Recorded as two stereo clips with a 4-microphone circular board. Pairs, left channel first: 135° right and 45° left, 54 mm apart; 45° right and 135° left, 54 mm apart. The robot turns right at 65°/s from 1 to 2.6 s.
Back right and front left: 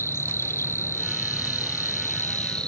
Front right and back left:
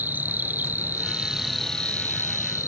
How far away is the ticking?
I don't hear ticking.